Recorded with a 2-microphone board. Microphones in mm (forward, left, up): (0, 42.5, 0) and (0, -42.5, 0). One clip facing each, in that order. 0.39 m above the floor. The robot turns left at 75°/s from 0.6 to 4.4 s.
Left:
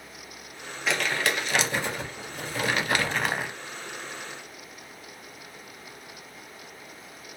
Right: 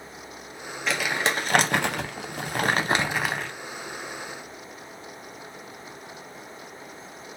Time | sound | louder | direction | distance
0.9 | crumpling | right 1 dB | 5° left | 0.6 m